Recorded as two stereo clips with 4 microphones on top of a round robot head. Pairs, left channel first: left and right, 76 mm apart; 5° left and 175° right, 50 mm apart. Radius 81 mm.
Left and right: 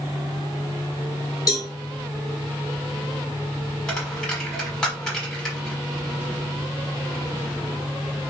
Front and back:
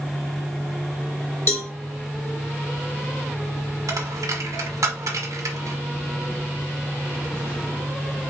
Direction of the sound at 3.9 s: 175° left.